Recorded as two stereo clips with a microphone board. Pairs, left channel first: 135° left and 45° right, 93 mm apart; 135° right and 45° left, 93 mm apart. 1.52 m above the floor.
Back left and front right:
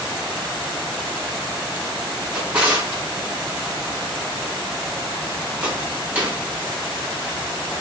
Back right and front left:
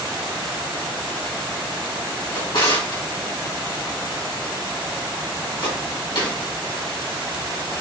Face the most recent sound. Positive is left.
turn(degrees=-125)